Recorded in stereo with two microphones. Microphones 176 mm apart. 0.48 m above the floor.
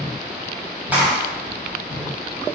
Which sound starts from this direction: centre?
A clap, at 0.9 s.